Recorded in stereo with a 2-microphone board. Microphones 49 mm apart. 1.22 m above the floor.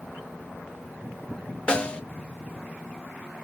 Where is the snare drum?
25° left (ahead or behind), 0.5 m.